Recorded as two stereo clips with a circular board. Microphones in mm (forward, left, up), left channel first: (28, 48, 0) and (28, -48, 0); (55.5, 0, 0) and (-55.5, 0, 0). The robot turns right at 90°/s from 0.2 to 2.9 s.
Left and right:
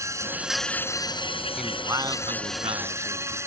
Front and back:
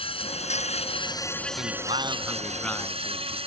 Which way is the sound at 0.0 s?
35° right.